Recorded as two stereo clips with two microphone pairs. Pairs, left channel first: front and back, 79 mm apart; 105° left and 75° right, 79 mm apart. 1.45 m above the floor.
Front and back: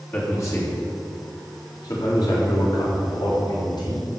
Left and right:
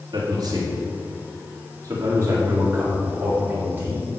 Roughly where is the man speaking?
Ahead right.